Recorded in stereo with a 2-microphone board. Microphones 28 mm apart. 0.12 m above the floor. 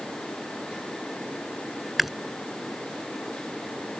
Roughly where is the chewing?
Centre.